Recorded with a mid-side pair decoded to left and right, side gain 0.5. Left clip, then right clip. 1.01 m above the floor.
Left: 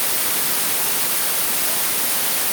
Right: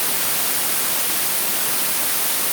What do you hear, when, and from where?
Only background noise.